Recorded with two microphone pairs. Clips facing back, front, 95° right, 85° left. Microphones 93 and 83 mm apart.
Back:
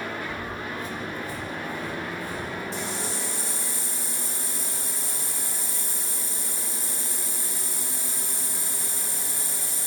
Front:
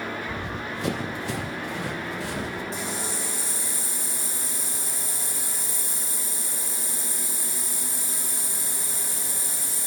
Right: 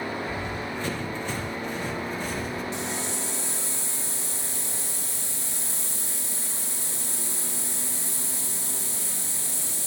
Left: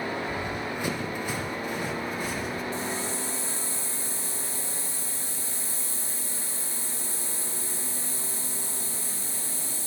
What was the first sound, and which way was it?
Running footsteps, 5° left.